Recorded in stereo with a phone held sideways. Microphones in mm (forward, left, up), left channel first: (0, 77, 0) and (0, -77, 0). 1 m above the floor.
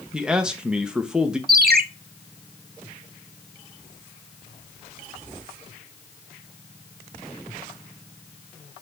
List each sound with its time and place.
0.1 s a man speaking: 5° right (ahead or behind), 0.6 m
1.5 s a ringtone: 70° right (ahead or behind), 0.6 m